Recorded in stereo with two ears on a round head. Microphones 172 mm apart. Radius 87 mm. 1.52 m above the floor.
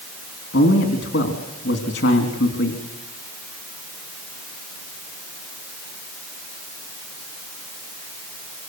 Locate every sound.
0.5 s a man speaking: 65° left (ahead or behind), 3.5 m